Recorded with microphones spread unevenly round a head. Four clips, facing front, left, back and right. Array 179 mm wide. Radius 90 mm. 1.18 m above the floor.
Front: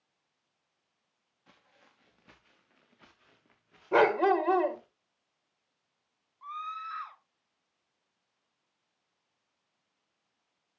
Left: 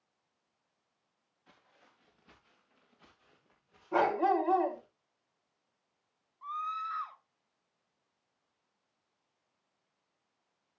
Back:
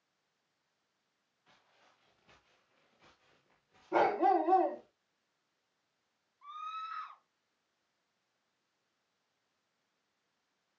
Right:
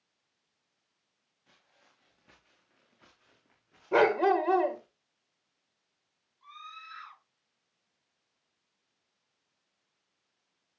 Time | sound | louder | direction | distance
1.5 | footsteps | left 3 dB, front 4 dB | straight ahead | 4.5 m
3.9 | a dog barking | right 4 dB, front 4 dB | 50° right | 1.9 m
6.4 | a scream | left 12 dB, front 4 dB | 40° left | 2 m